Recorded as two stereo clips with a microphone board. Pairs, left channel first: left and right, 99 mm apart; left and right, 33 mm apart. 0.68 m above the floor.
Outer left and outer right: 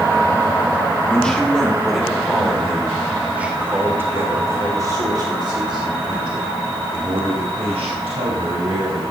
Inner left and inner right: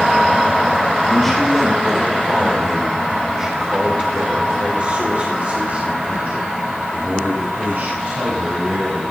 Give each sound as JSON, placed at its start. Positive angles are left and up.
{"t": 1.1, "sound": "a man speaking", "side_deg": 10, "distance_m": 4.0}